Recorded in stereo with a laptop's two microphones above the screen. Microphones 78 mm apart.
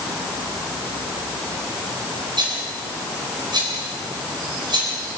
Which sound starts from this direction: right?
A rattle, at 2.4 s.